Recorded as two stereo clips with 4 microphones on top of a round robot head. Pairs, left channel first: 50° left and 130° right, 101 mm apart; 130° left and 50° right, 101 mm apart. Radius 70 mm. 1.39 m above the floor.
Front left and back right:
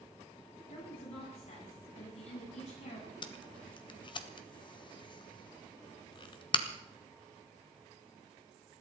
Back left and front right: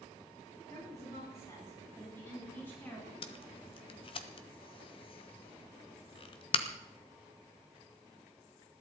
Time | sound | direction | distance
0.7 | a woman speaking | 75° left | 10 m
3.2 | tape being pulled | 90° left | 1.2 m